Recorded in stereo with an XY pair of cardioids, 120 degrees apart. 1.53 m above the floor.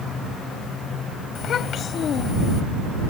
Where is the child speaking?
50° left.